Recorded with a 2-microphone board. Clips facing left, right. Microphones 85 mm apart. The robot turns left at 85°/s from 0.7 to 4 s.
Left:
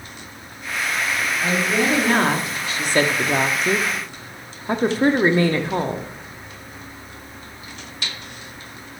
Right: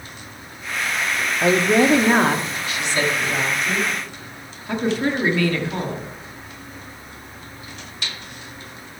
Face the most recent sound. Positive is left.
turn(degrees=35)